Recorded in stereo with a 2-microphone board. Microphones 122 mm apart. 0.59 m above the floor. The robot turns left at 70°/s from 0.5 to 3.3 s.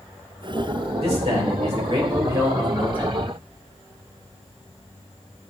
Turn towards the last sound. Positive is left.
turn(degrees=140)